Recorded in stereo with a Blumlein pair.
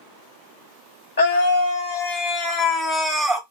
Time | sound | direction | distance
1.2 | a scream | 60° left | 1.3 m